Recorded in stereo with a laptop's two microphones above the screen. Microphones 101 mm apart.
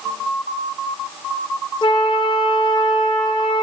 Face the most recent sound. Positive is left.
turn(degrees=50)  # may be behind; listen again after turning